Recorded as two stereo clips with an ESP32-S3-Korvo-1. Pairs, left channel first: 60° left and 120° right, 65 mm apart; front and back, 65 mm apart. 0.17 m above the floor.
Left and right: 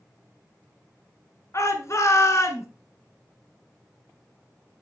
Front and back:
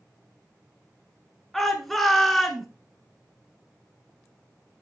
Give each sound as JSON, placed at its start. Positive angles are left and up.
{"t": 1.5, "sound": "a shout", "azimuth_deg": 85, "distance_m": 2.0}